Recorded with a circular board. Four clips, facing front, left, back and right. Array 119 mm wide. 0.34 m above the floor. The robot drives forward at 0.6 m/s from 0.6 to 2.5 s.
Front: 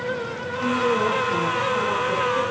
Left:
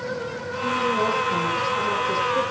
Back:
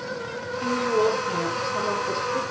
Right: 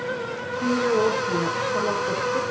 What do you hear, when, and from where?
0.6 s a woman speaking: 100° right, 6.5 m; by 2.5 s 110° right, 6.5 m